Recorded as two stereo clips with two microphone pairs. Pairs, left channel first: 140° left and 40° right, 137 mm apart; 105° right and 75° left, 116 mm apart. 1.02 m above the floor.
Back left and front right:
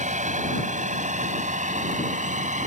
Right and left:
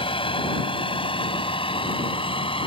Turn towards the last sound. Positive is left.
turn(degrees=-65)